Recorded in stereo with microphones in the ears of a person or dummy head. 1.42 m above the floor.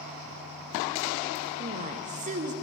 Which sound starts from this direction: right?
A woman speaking, at 1.6 s.